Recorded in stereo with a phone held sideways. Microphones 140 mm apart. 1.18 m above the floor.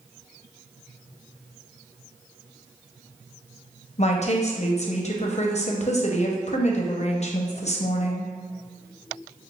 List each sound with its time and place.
4.0 s a woman speaking: 55° left (ahead or behind), 0.6 m